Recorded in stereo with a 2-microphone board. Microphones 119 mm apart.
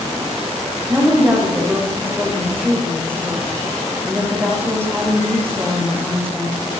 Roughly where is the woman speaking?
Centre.